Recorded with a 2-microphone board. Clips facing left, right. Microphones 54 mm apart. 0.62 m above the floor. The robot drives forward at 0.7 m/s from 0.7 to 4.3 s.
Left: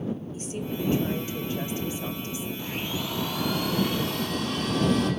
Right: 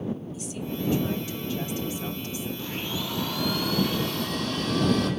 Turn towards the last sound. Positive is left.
turn(degrees=20)  # may be behind; listen again after turning